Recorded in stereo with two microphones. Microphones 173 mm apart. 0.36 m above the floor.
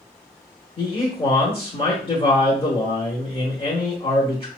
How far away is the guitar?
No guitar in this recording.